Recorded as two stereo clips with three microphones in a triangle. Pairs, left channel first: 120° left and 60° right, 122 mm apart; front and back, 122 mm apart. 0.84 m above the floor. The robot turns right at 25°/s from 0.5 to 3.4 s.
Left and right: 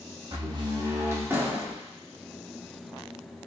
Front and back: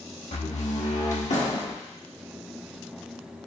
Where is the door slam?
10° right, 1.1 m; by 1.7 s 20° left, 1.1 m.